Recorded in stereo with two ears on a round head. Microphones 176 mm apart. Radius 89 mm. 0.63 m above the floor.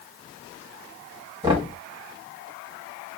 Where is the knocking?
25° right (ahead or behind), 1.6 m.